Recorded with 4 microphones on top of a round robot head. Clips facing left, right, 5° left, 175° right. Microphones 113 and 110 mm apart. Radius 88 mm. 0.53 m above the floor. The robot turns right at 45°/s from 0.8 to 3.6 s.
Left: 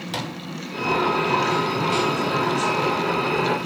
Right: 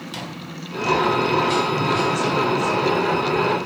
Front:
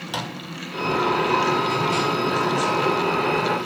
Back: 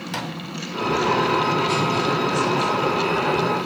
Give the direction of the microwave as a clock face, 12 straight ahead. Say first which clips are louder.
Left 5 dB, even; 9 o'clock.